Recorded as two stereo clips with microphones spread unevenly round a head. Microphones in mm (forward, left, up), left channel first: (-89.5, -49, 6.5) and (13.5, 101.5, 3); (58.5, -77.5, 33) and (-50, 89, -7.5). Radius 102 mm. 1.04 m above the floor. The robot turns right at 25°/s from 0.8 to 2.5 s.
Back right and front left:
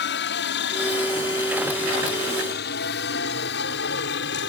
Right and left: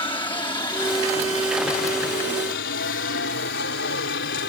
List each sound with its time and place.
0.0 s a helicopter: 130° right; by 4.5 s 95° right